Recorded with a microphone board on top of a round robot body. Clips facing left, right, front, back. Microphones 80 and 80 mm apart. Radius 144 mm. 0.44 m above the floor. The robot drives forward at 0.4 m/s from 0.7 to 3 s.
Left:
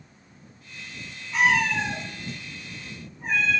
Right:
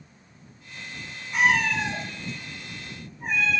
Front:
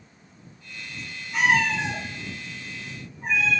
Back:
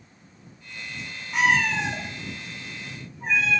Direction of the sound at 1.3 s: 170° right.